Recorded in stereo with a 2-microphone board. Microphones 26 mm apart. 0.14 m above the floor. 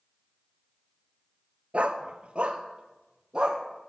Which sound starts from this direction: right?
A dog barking, at 1.7 s.